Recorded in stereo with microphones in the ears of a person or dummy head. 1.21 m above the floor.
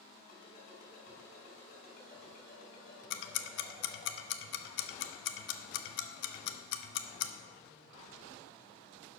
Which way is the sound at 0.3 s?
45° left (ahead or behind).